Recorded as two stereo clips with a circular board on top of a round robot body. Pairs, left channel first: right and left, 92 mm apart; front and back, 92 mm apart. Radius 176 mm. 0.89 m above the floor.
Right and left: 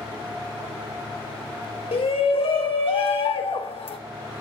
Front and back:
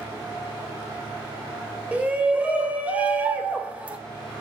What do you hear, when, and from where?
1.9 s a shout: 105° right, 4 m